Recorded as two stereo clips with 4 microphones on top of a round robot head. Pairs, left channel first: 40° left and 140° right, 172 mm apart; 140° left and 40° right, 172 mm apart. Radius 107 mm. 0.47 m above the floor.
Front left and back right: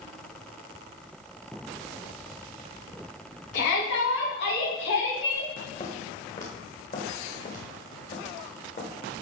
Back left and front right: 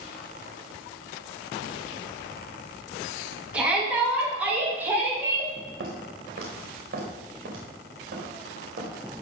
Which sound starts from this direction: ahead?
Footsteps, at 5.8 s.